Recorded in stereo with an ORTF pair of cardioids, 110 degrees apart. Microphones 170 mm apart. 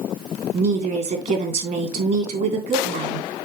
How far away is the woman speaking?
About 3 m.